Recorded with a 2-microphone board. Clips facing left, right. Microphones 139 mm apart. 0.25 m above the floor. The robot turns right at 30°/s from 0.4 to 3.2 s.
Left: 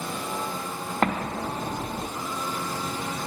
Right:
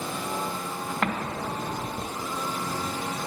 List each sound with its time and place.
1.0 s an explosion: 40° left (ahead or behind), 0.6 m